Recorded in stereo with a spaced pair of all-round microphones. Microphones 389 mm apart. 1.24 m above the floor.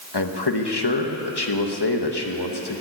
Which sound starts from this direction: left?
A man speaking, at 0.1 s.